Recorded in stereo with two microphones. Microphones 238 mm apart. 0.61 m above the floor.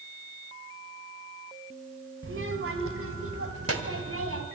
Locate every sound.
2.2 s a child speaking: 55° right (ahead or behind), 2 m; by 4.5 s 70° right (ahead or behind), 3 m